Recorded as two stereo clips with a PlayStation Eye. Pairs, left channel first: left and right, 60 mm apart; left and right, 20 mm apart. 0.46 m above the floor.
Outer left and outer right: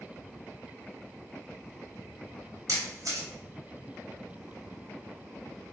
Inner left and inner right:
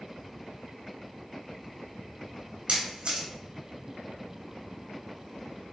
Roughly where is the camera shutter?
Right.